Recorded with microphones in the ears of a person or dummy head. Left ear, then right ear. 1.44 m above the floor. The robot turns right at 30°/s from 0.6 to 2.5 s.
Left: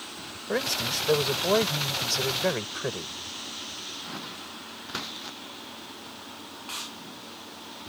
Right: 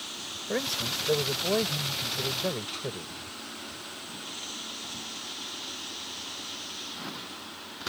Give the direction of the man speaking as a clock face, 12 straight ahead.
12 o'clock.